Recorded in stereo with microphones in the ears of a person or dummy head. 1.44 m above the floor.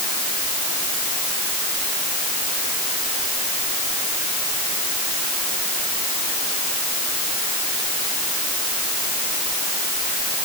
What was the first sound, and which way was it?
Only background noise.